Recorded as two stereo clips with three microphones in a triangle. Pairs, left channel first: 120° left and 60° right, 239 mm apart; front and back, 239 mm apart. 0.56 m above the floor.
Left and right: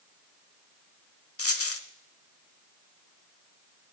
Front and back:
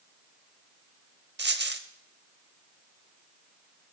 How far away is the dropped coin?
About 0.6 m.